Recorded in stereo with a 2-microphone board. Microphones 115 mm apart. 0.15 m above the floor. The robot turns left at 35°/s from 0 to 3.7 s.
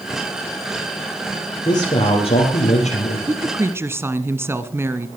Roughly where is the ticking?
No ticking in this recording.